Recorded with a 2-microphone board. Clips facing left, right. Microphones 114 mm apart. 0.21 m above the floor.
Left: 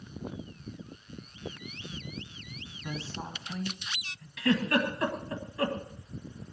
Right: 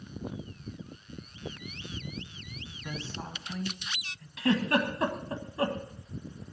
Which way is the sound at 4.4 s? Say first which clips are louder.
Even; 30° right (ahead or behind).